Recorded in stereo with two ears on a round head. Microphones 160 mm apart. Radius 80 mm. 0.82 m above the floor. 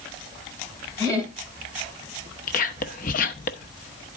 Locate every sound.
1.0 s laughter: 20° left (ahead or behind), 5.5 m
2.5 s whispering: 50° left (ahead or behind), 0.8 m